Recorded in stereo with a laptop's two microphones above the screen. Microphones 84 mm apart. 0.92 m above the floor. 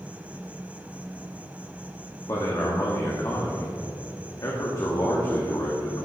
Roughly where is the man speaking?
Left.